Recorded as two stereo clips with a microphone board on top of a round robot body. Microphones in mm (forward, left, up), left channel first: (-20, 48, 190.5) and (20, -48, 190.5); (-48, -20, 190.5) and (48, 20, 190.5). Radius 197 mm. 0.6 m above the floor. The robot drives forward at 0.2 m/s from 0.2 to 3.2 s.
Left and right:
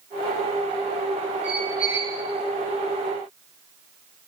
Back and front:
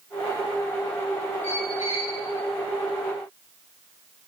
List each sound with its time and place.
1.4 s a squeak: 145° right, 3.5 m